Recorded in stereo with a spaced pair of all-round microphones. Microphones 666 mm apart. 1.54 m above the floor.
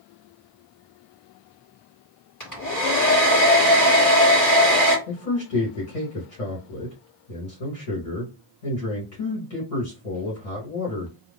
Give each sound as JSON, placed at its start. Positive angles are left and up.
{"t": 2.4, "sound": "a hair dryer", "side_deg": 30, "distance_m": 1.5}
{"t": 5.1, "sound": "a man speaking", "side_deg": 75, "distance_m": 1.3}